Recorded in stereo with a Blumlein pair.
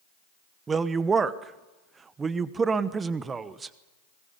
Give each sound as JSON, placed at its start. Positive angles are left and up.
{"t": 0.7, "sound": "a woman speaking", "azimuth_deg": -15, "distance_m": 1.1}